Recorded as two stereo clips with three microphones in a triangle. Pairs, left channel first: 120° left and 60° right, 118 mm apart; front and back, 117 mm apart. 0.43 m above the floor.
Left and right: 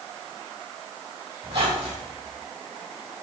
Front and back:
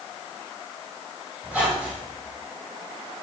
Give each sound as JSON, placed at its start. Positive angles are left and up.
{"t": 1.4, "sound": "a squeak", "azimuth_deg": -100, "distance_m": 4.5}